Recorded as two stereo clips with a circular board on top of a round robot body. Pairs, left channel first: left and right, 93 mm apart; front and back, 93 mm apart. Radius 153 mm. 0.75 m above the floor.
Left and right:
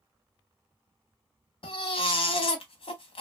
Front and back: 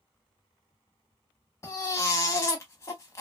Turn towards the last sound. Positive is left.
turn(degrees=60)